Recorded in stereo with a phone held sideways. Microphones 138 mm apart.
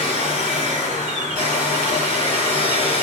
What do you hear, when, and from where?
0.0 s a machine running: 65° right (ahead or behind), 1.9 m